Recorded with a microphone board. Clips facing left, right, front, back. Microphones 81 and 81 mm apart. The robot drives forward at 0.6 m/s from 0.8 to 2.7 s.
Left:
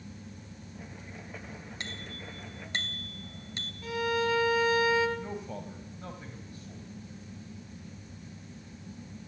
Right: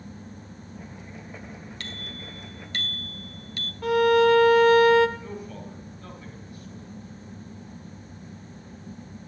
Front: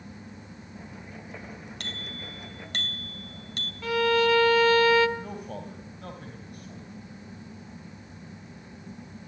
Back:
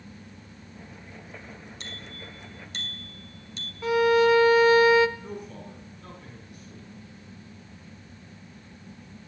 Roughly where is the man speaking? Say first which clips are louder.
Even, front 2 dB; ahead left.